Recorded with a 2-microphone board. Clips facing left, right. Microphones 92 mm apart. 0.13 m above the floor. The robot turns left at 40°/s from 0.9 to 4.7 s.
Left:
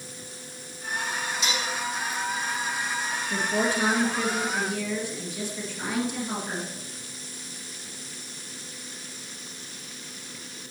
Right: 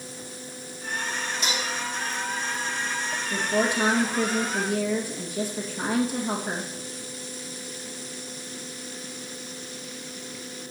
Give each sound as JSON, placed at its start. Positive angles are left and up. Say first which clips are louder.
{"t": 1.4, "sound": "dishes clattering", "louder": "even", "side_deg": -45, "distance_m": 3.0}
{"t": 3.3, "sound": "a woman speaking", "louder": "right 1 dB", "azimuth_deg": 0, "distance_m": 2.5}